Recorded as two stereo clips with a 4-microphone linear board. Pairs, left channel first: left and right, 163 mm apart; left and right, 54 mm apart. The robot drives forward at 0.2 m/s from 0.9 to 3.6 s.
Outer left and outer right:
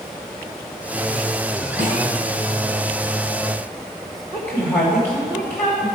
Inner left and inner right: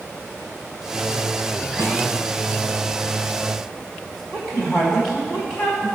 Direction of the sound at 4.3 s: 10° left (ahead or behind).